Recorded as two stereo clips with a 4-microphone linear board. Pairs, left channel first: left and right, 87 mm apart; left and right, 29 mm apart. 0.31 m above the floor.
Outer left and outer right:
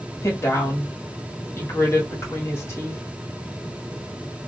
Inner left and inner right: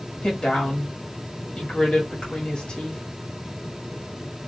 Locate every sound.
0.2 s a woman speaking: 30° left (ahead or behind), 1.5 m